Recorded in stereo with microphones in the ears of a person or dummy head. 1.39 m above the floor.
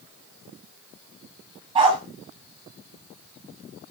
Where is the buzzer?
I don't hear a buzzer.